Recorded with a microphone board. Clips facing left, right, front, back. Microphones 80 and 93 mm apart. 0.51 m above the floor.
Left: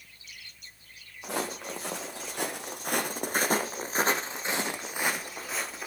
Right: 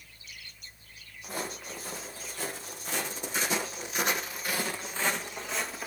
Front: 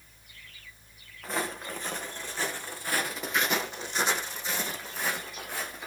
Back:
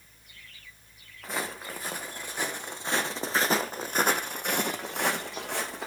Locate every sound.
1.2 s footsteps: 90° left, 2.5 m; by 5.9 s straight behind, 1.9 m